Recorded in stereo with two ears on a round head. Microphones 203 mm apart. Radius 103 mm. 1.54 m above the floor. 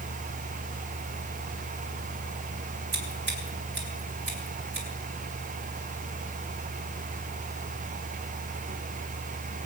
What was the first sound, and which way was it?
Scissors, 55° right (ahead or behind).